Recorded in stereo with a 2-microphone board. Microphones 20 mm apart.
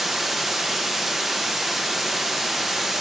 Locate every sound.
0.0 s running water: 10° right (ahead or behind), 1.0 m